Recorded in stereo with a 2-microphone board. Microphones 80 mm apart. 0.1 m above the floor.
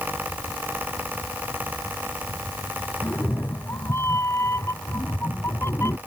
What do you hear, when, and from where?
3.0 s a cat meowing: 35° left (ahead or behind)